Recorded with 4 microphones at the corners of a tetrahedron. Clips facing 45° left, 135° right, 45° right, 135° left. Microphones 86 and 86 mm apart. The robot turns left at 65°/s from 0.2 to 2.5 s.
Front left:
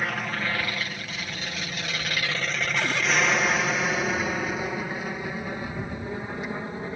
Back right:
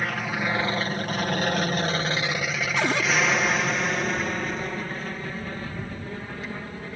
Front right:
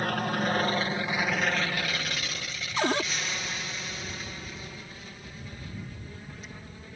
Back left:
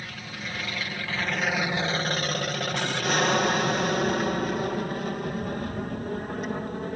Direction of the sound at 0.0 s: 45° right.